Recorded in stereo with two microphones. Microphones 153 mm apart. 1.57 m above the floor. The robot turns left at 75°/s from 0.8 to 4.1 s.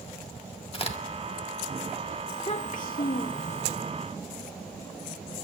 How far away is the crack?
About 1.9 m.